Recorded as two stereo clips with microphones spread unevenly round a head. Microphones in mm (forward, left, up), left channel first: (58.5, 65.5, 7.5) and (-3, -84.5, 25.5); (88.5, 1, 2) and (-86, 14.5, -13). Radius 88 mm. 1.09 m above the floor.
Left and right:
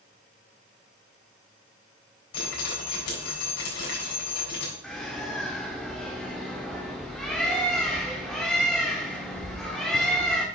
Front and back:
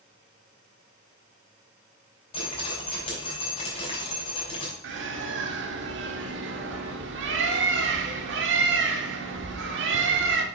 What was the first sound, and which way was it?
Dripping, 55° left.